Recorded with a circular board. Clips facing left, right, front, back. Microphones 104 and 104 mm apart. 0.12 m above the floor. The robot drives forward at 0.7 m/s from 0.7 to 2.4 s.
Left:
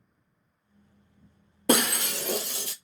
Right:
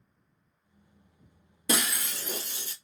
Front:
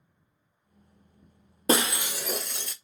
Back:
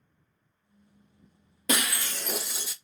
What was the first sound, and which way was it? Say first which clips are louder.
Breaking glass: left 7 dB, front 5 dB; 55° left.